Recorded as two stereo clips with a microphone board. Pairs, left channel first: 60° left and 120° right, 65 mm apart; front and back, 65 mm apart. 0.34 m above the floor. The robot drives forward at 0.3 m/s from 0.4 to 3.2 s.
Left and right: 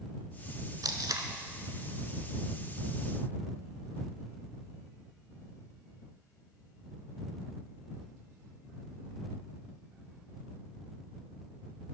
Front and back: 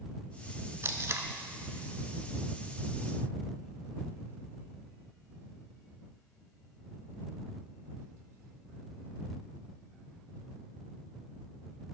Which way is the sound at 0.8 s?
130° right.